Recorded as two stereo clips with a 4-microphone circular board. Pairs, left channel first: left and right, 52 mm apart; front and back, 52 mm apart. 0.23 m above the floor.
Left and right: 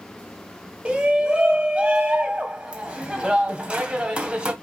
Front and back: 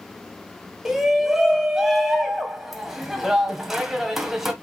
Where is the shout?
110° right, 1.4 m.